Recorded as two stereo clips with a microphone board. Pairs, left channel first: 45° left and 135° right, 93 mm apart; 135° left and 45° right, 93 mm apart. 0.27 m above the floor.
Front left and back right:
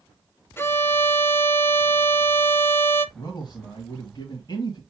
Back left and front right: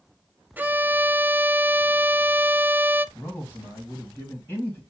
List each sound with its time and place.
0.6 s a violin: 10° left, 0.5 m
3.1 s a man speaking: 75° left, 1.9 m